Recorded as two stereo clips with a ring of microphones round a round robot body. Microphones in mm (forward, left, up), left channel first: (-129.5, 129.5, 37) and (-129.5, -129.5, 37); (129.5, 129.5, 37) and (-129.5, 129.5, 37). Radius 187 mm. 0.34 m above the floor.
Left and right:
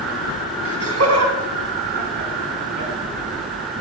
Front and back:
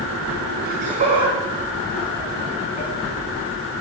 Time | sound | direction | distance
0.7 | laughter | 120° right | 3 m